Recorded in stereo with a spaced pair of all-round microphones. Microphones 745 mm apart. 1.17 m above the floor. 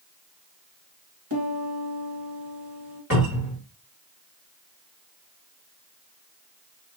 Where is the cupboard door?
20° right (ahead or behind), 1.7 m.